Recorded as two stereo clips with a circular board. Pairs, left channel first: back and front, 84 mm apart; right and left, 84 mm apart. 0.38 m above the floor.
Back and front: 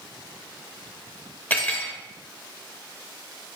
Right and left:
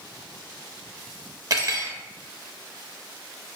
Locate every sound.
1.5 s cutlery clinking: 115° left, 0.6 m